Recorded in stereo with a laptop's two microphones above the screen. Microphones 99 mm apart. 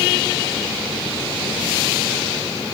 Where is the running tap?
I don't hear a running tap.